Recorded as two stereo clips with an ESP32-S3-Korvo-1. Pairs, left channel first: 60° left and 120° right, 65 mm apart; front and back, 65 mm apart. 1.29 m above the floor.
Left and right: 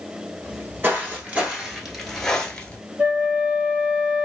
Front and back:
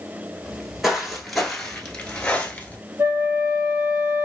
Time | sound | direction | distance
0.4 | footsteps | 105° right | 1.6 m
3.0 | a flute | 165° right | 1.9 m